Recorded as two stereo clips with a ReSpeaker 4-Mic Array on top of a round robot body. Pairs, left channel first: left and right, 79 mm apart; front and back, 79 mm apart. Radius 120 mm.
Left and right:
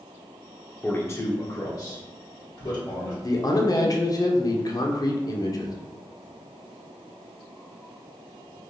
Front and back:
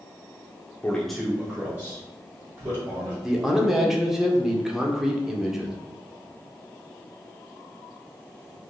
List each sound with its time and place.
0.8 s a man speaking: 50° left, 0.6 m; by 3.1 s 130° left, 1.6 m
3.2 s a man speaking: 95° left, 0.7 m